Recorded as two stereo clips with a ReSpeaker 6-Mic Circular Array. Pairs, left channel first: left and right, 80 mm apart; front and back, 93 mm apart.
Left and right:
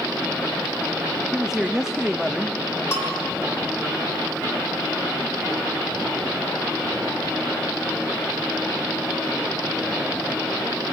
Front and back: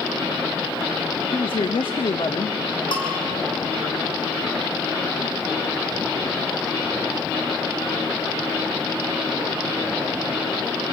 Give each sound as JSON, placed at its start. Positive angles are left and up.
{"t": 1.3, "sound": "a man speaking", "azimuth_deg": -5, "distance_m": 1.0}
{"t": 2.9, "sound": "a bell", "azimuth_deg": 30, "distance_m": 5.5}